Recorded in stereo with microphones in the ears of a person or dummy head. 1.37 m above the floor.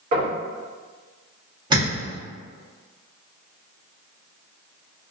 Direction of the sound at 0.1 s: 50° right (ahead or behind).